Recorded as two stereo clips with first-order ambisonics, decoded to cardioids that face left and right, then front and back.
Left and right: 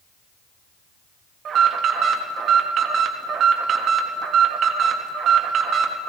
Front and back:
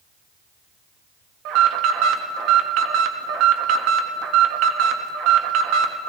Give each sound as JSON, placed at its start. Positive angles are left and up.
{"t": 1.4, "sound": "an alarm", "azimuth_deg": -150, "distance_m": 0.9}